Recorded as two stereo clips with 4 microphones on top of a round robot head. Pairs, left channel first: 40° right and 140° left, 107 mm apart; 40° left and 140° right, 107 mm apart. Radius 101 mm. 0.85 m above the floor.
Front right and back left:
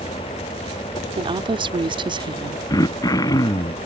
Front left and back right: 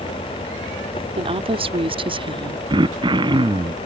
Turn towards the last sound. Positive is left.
turn(degrees=-95)